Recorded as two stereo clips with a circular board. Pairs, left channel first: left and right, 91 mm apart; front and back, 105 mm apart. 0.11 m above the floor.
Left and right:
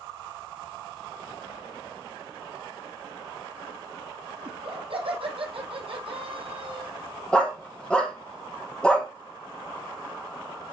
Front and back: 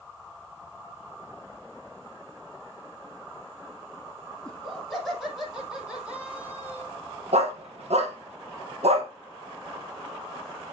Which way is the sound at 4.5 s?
85° right.